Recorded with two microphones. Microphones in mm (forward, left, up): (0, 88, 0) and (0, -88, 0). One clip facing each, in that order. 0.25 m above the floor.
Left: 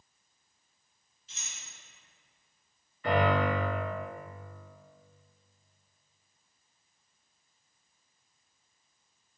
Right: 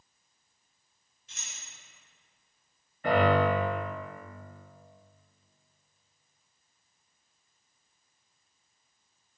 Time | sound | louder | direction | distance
1.3 | keys jangling | even | 55° right (ahead or behind) | 2.0 m
3.0 | a piano | right 3 dB | 50° right (ahead or behind) | 1.8 m